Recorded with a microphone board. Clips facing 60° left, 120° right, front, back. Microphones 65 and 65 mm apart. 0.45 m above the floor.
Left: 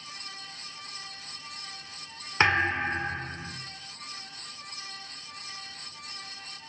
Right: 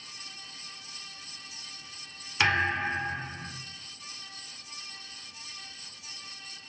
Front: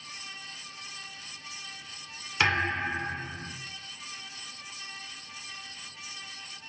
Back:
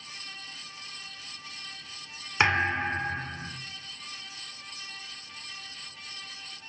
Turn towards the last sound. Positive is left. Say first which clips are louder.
# left 2 dB, back 2 dB
turn(degrees=120)